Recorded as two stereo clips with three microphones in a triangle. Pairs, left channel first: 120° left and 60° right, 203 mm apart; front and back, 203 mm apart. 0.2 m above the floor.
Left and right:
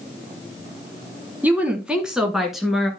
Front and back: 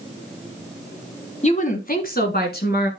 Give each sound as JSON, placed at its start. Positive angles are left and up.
{"t": 1.4, "sound": "a woman speaking", "azimuth_deg": 15, "distance_m": 1.2}